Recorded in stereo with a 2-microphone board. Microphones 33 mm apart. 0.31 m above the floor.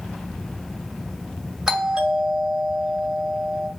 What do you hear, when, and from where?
1.7 s a doorbell: 15° right (ahead or behind), 2.5 m